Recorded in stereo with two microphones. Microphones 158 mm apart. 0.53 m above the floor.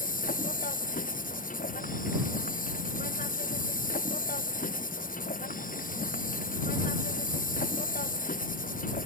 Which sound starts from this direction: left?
An insect, at 0.0 s.